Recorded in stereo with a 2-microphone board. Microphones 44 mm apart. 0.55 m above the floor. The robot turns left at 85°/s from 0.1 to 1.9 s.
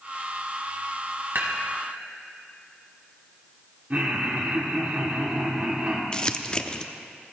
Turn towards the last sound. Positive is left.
turn(degrees=20)  # may be behind; listen again after turning